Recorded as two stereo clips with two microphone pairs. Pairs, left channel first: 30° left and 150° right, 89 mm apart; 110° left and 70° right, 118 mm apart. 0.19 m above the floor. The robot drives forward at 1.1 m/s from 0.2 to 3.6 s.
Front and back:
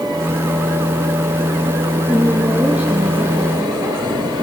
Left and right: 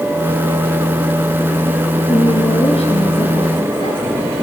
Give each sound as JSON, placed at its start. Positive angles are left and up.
{"t": 2.1, "sound": "a woman speaking", "azimuth_deg": 120, "distance_m": 2.5}